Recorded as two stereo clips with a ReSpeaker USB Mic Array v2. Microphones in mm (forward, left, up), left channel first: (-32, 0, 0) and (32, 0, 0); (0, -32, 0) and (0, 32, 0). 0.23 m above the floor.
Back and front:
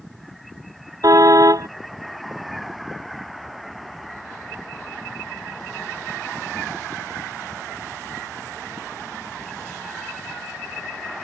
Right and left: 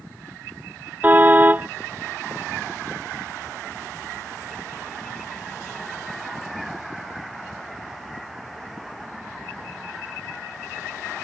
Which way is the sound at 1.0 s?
30° left.